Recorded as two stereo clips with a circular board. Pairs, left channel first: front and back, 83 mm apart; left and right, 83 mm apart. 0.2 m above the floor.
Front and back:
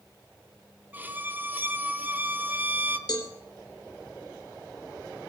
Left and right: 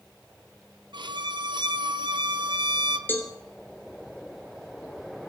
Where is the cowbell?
25° left, 1.7 m.